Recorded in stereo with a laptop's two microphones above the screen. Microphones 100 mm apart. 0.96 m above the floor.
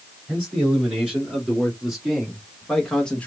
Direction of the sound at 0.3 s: 10° right (ahead or behind).